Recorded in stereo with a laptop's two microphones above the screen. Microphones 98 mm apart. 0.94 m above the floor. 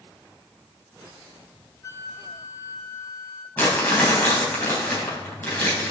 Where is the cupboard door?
No cupboard door in this recording.